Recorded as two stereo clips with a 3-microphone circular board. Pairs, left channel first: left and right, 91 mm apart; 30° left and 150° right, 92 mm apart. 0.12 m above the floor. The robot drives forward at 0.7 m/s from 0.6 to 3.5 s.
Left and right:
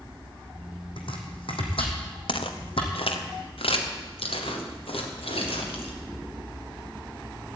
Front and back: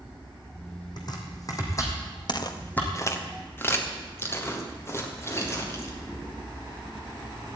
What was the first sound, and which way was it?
Chopping, 70° left.